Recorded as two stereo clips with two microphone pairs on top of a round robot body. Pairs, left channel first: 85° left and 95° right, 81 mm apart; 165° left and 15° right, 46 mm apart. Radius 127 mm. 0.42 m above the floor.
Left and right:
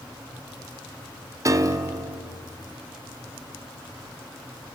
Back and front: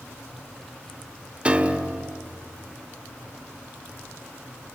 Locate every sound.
1.4 s a piano: 80° right, 1.3 m